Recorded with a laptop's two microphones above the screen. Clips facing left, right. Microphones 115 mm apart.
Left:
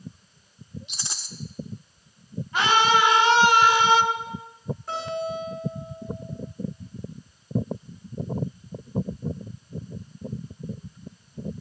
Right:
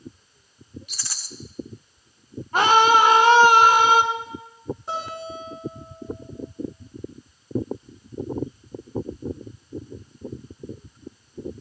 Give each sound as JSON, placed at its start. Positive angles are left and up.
{"t": 0.9, "sound": "a rattle", "side_deg": 25, "distance_m": 1.0}
{"t": 2.5, "sound": "a scream", "side_deg": -45, "distance_m": 1.7}
{"t": 4.9, "sound": "a guitar", "side_deg": -20, "distance_m": 8.5}